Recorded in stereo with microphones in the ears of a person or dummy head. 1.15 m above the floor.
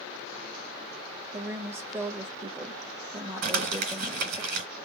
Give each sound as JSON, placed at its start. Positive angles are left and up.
{"t": 1.3, "sound": "a woman speaking", "side_deg": -10, "distance_m": 1.2}
{"t": 3.4, "sound": "crumpling", "side_deg": -55, "distance_m": 1.9}